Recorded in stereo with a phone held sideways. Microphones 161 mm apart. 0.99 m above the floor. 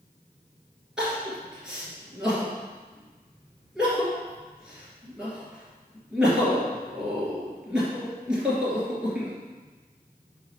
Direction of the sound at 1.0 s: 5° right (ahead or behind).